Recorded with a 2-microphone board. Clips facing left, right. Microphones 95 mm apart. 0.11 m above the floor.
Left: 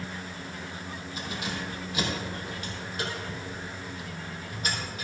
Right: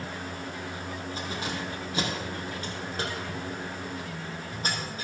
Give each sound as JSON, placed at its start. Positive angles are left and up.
{"t": 1.2, "sound": "keys jangling", "side_deg": -35, "distance_m": 3.0}